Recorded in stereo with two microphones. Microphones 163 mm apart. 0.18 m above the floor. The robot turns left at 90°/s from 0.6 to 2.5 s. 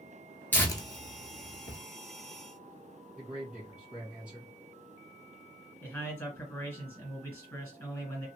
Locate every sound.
0.5 s tearing paper: 10° left (ahead or behind), 0.8 m; by 1.8 s 60° left (ahead or behind), 0.8 m
3.1 s a man speaking: 5° right (ahead or behind), 1.8 m
5.8 s a man speaking: 10° left (ahead or behind), 1.8 m